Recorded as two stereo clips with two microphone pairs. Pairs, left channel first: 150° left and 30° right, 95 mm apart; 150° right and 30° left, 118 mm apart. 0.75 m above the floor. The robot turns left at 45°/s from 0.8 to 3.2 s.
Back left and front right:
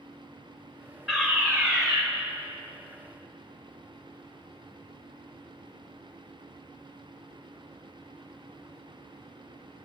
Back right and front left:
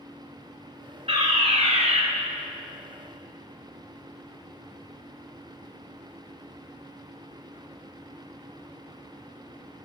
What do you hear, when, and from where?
1.1 s a fire alarm: 55° left, 5 m; by 2.0 s 15° left, 5 m